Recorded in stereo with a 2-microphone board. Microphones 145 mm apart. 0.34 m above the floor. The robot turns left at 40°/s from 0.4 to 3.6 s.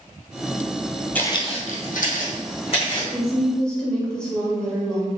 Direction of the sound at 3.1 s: 5° right (ahead or behind).